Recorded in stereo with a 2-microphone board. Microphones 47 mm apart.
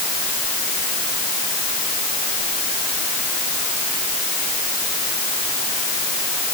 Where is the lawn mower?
No lawn mower in this recording.